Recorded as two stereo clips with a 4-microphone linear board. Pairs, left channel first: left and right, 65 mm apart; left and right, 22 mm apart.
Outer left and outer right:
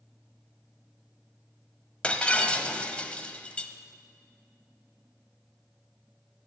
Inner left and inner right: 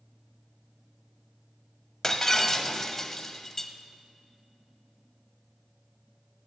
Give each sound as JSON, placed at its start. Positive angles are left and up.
{"t": 2.0, "sound": "breaking glass", "side_deg": 20, "distance_m": 0.9}